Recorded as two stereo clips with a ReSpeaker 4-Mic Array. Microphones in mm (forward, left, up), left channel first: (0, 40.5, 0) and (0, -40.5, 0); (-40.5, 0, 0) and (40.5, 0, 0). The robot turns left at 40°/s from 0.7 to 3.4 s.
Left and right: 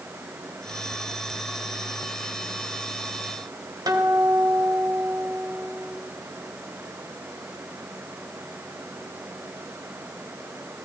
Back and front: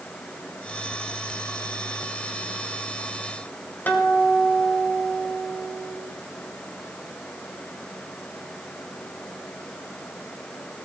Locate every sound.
3.9 s a guitar: 115° right, 2 m